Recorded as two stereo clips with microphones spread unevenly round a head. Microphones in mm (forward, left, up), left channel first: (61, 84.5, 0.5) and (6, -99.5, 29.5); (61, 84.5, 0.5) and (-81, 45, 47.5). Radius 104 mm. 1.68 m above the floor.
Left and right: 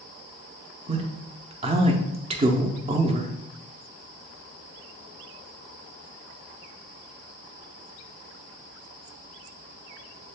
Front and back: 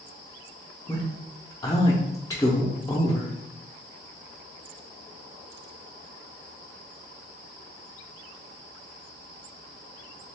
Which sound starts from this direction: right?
A man speaking, at 0.9 s.